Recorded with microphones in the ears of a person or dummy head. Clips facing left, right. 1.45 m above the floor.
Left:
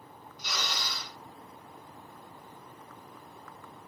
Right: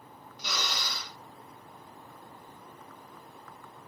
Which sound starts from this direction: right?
A drill, at 0.4 s.